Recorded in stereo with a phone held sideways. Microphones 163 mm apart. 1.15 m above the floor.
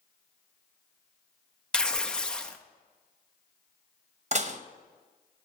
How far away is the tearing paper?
About 0.6 m.